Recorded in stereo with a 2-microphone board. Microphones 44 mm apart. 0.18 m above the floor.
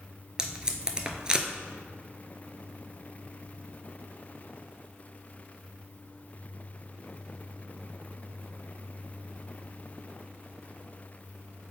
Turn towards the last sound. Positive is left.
turn(degrees=-20)  # may be behind; listen again after turning